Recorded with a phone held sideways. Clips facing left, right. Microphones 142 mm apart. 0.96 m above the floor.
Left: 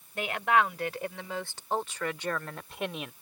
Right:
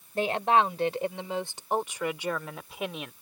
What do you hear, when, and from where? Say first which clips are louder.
0.1 s a woman speaking: right 3 dB; 30° right (ahead or behind); by 3.1 s centre (ahead or behind)